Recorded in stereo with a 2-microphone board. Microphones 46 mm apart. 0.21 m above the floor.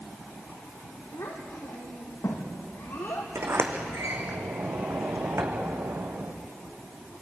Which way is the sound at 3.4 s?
60° right (ahead or behind).